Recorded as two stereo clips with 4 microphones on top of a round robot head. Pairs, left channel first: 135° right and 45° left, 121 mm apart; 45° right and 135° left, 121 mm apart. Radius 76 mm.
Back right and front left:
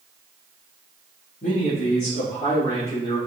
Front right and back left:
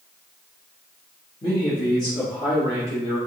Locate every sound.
1.4 s a man speaking: 105° right, 1.3 m; by 3.2 s 85° right, 2.5 m